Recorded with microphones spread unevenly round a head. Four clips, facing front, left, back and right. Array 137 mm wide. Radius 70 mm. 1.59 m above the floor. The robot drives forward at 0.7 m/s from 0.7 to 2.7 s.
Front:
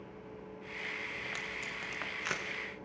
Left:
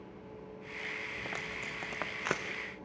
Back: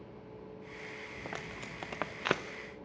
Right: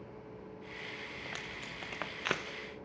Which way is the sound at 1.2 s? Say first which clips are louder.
Left 3 dB, even; 150° left.